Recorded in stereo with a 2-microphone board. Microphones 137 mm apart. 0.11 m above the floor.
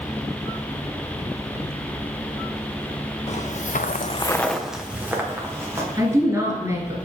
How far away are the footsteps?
About 1.2 m.